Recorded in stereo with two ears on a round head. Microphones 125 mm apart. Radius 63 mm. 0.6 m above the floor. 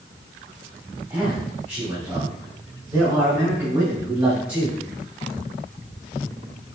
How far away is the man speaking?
About 4 m.